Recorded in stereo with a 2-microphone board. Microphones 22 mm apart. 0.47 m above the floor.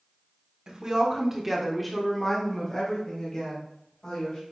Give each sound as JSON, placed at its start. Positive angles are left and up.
{"t": 0.7, "sound": "a woman speaking", "side_deg": -40, "distance_m": 1.0}